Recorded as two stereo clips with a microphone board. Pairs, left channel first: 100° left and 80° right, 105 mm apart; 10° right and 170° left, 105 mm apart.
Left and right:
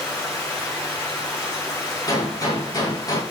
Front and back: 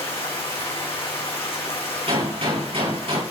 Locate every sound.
0.0 s running water: 20° left, 4.5 m
2.1 s a gunshot: 150° left, 4.5 m